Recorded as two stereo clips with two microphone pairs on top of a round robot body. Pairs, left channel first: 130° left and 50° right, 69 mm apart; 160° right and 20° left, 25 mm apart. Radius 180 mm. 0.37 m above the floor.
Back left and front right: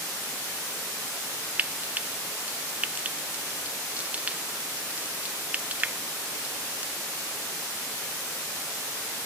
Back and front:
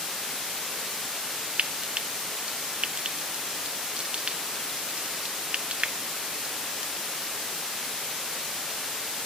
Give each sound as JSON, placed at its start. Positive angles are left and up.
{"t": 1.6, "sound": "frying", "azimuth_deg": 10, "distance_m": 0.8}